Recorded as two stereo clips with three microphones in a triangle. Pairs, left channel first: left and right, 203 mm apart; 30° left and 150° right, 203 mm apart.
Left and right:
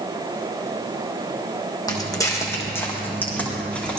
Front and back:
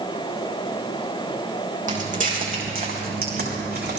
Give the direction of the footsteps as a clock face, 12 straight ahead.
7 o'clock.